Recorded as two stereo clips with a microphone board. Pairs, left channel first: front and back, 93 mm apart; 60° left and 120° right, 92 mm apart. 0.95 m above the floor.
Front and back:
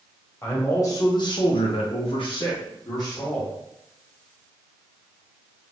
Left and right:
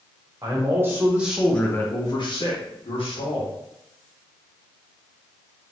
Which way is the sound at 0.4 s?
65° right.